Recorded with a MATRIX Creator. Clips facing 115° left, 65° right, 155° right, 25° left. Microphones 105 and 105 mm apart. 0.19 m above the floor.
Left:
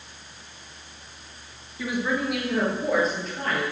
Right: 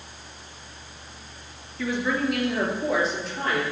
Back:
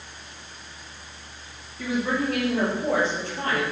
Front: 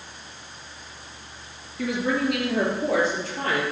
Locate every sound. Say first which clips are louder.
1.8 s a woman speaking: right 1 dB, front 1 dB; 35° left, 2.5 m; by 3.6 s 15° left, 3.5 m